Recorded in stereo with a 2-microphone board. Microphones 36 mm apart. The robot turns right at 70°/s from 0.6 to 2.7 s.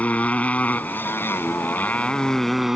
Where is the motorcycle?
40° left; by 2.8 s 175° right.